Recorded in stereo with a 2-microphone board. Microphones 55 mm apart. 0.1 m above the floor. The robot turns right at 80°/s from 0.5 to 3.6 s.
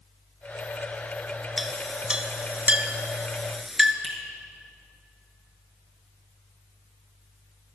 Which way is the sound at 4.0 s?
15° right (ahead or behind).